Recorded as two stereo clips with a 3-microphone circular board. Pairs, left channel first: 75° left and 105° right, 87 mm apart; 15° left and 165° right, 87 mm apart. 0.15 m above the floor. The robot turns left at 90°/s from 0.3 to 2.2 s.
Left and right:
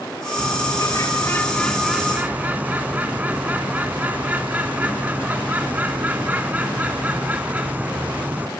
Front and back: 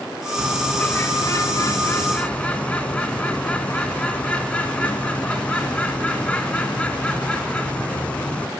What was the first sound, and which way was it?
A bird, 115° left.